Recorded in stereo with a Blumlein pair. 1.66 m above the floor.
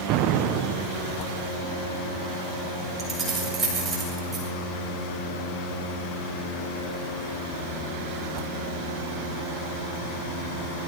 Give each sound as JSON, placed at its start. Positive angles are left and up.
{"t": 0.1, "sound": "an explosion", "azimuth_deg": -40, "distance_m": 1.3}
{"t": 3.0, "sound": "keys jangling", "azimuth_deg": -20, "distance_m": 6.5}